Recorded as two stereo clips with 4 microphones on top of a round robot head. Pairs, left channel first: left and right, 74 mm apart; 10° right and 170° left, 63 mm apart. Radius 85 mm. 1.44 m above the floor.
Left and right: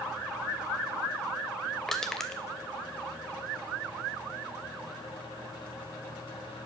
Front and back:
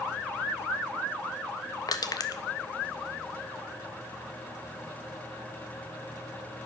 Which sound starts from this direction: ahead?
Crushing, at 1.9 s.